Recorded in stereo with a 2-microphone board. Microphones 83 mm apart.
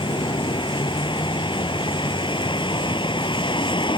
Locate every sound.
0.0 s a vehicle: 85° left